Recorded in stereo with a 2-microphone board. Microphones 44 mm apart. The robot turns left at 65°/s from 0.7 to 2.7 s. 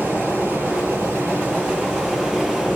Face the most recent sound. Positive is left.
turn(degrees=180)